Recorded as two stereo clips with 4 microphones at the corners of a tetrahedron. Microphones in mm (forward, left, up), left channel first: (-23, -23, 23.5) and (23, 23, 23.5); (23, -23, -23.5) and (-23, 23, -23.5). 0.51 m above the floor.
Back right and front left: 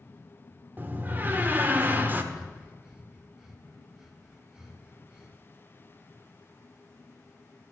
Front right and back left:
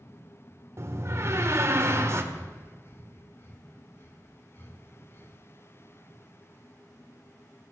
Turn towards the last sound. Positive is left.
turn(degrees=-30)